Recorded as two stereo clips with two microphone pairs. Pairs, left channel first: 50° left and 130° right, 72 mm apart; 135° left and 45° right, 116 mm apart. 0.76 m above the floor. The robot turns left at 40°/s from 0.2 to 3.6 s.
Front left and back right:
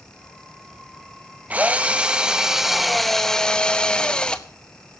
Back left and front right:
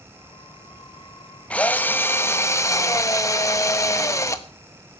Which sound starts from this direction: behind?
A drill, at 1.5 s.